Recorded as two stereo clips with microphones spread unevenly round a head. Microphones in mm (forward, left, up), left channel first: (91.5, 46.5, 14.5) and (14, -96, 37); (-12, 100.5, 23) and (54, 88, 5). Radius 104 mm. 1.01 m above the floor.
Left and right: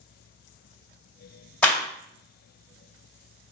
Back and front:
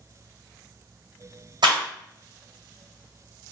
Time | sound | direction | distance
1.6 | a clap | 20° right | 2 m